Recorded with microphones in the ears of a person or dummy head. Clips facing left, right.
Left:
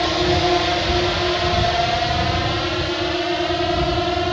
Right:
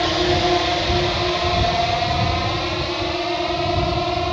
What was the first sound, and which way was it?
A drone, 5° right (ahead or behind).